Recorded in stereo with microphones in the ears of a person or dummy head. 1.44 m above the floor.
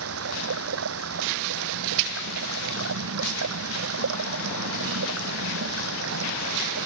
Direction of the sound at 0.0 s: 80° right.